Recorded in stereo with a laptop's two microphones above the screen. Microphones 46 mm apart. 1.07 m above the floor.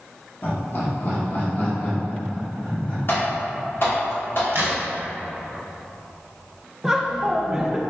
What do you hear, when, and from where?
0.4 s laughter: 45° left (ahead or behind), 0.9 m; by 3.0 s 30° left (ahead or behind), 1.7 m
3.1 s typing on a keyboard: 50° left (ahead or behind), 2.0 m
4.5 s a crack: 55° right (ahead or behind), 0.8 m
6.8 s laughter: 10° right (ahead or behind), 0.6 m